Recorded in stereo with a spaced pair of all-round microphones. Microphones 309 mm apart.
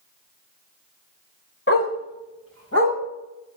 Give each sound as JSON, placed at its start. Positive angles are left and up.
{"t": 1.7, "sound": "a dog barking", "side_deg": 40, "distance_m": 2.5}